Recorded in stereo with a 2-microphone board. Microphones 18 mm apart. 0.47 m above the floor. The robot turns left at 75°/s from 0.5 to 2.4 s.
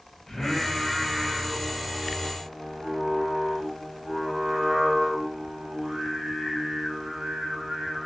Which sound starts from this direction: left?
Singing, at 0.3 s.